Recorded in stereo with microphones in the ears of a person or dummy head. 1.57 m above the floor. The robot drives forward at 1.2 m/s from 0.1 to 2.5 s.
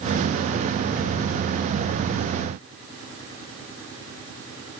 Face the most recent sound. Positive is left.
No sound to turn to.